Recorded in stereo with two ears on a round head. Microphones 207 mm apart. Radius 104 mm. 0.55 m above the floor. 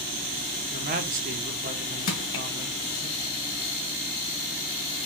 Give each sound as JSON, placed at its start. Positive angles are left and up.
{"t": 0.7, "sound": "a man speaking", "side_deg": -35, "distance_m": 0.9}
{"t": 2.1, "sound": "crushing", "side_deg": 85, "distance_m": 1.3}